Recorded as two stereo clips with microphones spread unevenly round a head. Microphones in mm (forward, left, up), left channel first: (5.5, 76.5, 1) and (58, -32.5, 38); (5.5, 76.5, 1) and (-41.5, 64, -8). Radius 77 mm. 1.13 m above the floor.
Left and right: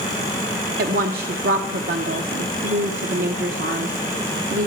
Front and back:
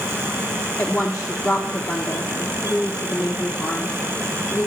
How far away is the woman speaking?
About 1.0 m.